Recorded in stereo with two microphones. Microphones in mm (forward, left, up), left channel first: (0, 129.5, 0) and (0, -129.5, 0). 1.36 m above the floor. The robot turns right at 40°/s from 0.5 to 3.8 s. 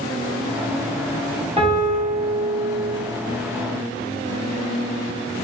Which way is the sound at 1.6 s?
20° right (ahead or behind).